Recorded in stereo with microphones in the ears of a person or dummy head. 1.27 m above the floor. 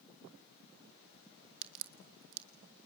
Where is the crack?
75° right (ahead or behind), 1.5 m.